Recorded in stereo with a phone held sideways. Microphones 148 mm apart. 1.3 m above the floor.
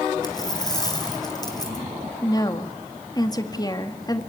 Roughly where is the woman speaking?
Left.